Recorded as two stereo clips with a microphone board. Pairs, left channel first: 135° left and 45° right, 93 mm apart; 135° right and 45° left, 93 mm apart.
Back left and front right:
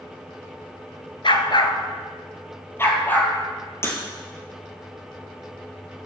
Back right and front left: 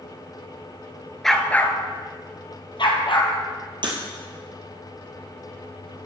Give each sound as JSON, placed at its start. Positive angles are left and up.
{"t": 1.2, "sound": "a dog barking", "azimuth_deg": 140, "distance_m": 1.0}
{"t": 3.8, "sound": "breaking glass", "azimuth_deg": 75, "distance_m": 2.5}